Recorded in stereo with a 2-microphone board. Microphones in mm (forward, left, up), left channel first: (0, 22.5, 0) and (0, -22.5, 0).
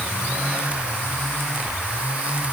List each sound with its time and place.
Only background noise.